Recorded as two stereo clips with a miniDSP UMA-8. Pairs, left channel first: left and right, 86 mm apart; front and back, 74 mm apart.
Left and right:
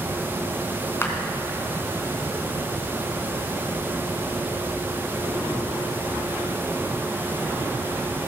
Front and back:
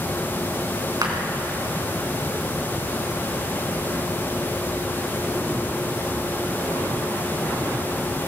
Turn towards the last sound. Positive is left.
turn(degrees=150)